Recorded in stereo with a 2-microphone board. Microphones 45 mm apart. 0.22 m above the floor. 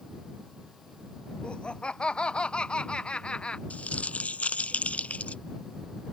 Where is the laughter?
20° left (ahead or behind).